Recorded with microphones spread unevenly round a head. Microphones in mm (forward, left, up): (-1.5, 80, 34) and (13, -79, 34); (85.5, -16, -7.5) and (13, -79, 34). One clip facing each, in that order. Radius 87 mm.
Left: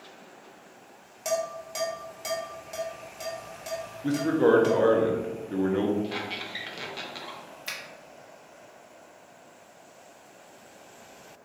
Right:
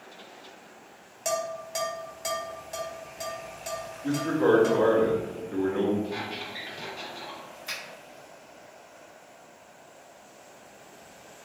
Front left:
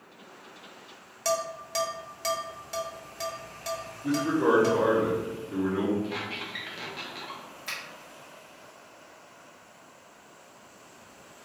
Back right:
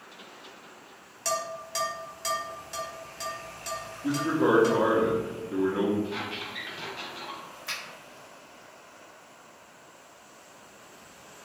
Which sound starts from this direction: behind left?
A man speaking, at 4.0 s.